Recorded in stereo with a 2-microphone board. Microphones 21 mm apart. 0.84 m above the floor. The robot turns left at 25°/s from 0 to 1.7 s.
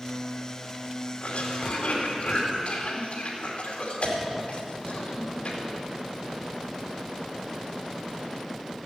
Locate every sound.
1.2 s a cough: 75° left (ahead or behind), 2.5 m; by 5.6 s 70° left (ahead or behind), 2.5 m